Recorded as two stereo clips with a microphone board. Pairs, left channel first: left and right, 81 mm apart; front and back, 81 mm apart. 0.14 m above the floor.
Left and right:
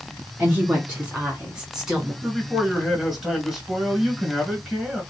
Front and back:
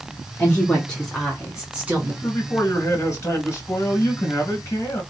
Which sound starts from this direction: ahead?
A man speaking, at 2.2 s.